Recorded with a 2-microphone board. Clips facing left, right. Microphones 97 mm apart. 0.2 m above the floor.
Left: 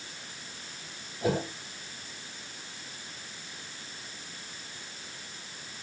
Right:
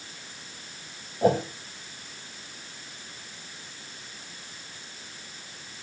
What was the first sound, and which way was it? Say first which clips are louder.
A whoosh: right 7 dB; 45° right (ahead or behind).